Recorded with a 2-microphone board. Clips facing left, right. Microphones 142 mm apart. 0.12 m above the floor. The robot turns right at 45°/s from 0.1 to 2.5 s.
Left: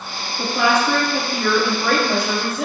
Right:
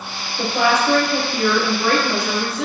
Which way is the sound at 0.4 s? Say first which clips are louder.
Even; 30° right.